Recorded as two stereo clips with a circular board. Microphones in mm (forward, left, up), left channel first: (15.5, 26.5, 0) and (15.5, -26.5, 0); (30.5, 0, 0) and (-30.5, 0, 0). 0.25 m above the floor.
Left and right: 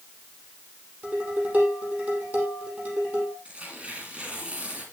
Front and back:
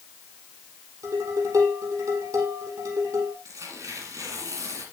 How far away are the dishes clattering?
About 6 m.